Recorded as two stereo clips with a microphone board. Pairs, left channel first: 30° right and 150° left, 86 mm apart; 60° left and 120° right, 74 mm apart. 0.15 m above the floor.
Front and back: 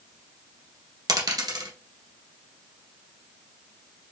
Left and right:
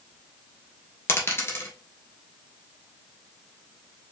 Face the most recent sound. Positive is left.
turn(degrees=115)